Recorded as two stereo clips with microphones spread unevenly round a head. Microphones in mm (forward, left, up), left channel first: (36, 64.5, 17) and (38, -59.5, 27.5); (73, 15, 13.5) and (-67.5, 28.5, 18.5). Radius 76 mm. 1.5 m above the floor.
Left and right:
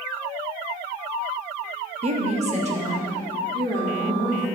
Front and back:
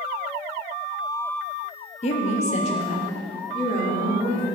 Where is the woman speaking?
55° right, 1.0 m; by 4.6 s 60° right, 4.5 m.